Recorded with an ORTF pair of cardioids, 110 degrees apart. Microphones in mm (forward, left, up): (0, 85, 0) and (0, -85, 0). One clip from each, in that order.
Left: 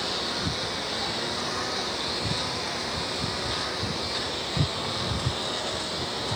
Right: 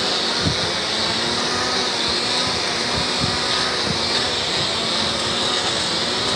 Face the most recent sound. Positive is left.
turn(degrees=-60)